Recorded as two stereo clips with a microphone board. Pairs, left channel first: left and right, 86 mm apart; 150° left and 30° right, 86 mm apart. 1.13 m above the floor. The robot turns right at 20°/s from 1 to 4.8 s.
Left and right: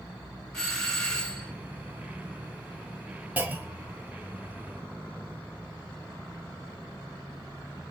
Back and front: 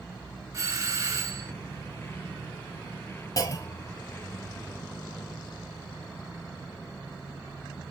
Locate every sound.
0.5 s a doorbell: 10° left, 0.7 m; by 1.5 s 20° left, 0.7 m
3.4 s a clunk: 160° right, 0.7 m; by 4.0 s 150° right, 0.7 m